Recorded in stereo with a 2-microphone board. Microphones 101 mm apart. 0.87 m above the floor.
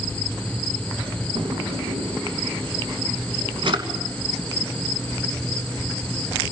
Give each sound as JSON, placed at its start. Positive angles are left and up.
{"t": 1.4, "sound": "a drawer", "side_deg": -55, "distance_m": 2.0}